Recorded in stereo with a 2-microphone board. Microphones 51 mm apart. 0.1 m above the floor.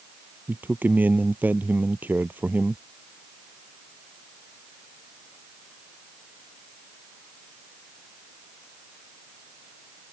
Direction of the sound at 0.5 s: 40° right (ahead or behind).